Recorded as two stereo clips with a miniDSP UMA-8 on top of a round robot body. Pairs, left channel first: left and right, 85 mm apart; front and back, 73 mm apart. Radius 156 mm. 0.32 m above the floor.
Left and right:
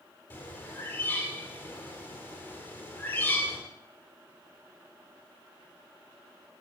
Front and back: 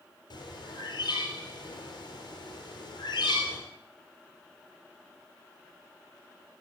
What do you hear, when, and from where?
0.3 s a bird: 25° left, 4 m